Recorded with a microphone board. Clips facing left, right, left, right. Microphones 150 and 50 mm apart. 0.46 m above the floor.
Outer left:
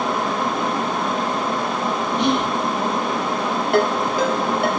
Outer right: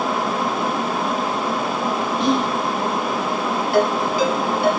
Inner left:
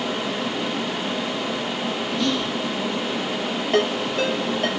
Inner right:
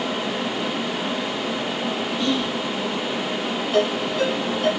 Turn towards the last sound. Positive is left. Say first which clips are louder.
# outer right 1 dB, even
turn(degrees=55)  # may be behind; listen again after turning